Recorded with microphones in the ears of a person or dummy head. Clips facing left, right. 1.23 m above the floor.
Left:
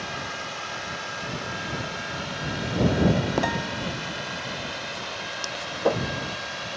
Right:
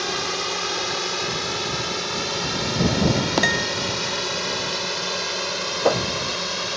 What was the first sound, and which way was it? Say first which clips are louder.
A drone: right 7 dB; 75° right (ahead or behind).